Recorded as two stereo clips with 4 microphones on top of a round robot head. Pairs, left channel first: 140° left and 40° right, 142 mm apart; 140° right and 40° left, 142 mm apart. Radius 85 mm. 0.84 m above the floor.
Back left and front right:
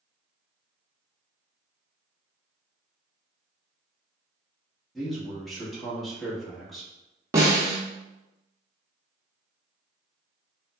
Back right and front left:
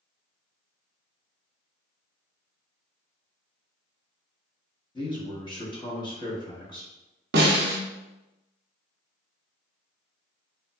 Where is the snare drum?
30° left, 0.6 m.